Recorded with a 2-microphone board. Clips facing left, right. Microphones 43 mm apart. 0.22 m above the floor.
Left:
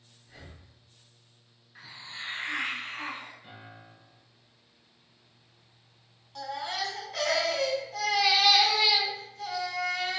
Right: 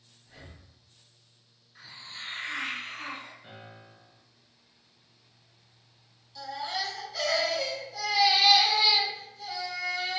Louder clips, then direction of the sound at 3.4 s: Even; 15° right (ahead or behind).